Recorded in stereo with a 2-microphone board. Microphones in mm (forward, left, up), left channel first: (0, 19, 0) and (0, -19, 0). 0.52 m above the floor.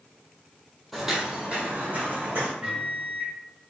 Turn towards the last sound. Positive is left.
turn(degrees=-30)  # may be behind; listen again after turning